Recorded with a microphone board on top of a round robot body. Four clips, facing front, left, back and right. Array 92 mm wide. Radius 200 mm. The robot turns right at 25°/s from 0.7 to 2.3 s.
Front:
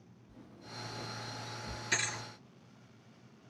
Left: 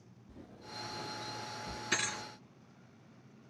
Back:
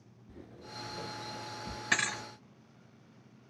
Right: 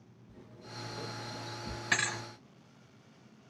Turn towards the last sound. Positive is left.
turn(degrees=-130)